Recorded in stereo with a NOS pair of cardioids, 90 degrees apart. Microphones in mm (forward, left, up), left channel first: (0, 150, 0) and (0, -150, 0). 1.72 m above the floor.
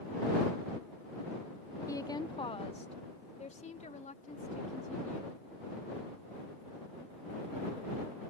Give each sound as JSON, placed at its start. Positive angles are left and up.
{"t": 1.9, "sound": "a woman speaking", "azimuth_deg": 10}